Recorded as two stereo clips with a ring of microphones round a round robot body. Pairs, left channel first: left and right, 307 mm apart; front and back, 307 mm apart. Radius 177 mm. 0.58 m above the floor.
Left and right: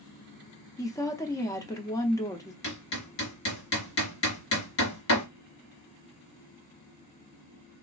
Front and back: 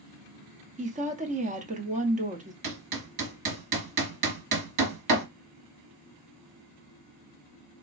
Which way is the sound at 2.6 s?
145° left.